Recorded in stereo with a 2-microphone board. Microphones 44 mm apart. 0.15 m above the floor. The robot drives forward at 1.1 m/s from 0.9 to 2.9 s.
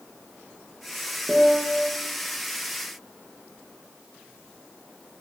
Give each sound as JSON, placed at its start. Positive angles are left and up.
{"t": 1.3, "sound": "a piano", "side_deg": -10, "distance_m": 2.5}